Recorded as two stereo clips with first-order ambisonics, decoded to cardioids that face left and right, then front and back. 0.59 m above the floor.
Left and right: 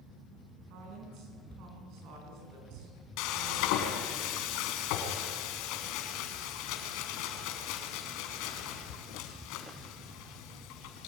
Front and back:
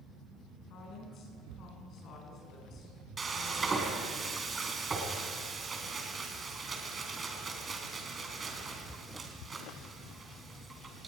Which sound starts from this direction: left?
Frying, at 3.2 s.